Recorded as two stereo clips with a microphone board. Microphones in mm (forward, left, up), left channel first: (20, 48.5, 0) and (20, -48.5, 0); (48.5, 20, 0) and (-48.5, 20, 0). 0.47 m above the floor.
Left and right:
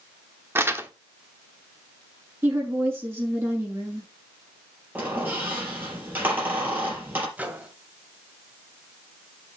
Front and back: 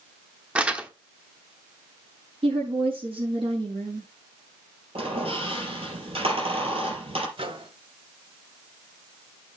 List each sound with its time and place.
0.6 s crumpling: 115° right, 1.1 m
2.4 s a woman speaking: 155° right, 6 m
5.0 s a squeak: 160° right, 4.5 m
7.4 s a microwave: 165° right, 1.7 m